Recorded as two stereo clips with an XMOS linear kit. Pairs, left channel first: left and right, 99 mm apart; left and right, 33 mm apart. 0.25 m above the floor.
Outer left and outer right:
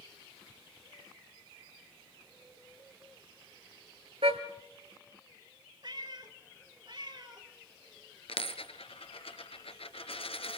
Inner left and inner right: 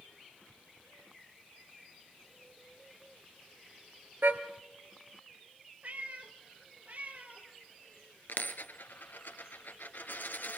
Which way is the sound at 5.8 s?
50° right (ahead or behind).